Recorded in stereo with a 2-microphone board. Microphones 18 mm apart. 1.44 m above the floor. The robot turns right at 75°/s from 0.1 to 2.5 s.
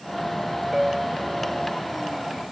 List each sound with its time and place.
0.7 s a piano: 145° right; by 1.8 s 65° right